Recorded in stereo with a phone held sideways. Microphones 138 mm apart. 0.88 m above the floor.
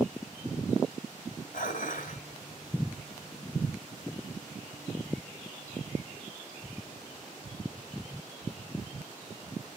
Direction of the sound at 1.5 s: 80° left.